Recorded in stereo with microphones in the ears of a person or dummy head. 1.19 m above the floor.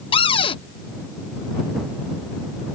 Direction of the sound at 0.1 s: 35° left (ahead or behind).